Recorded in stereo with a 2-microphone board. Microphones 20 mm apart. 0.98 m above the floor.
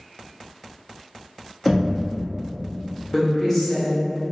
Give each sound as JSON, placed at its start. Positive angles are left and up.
{"t": 1.6, "sound": "knocking", "side_deg": 5, "distance_m": 0.9}
{"t": 3.1, "sound": "a woman speaking", "side_deg": 15, "distance_m": 1.2}